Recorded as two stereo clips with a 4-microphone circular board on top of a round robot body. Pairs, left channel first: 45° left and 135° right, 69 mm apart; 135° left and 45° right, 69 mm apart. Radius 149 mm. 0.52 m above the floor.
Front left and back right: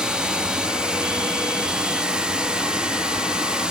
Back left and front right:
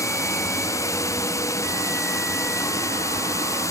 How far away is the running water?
About 1.1 m.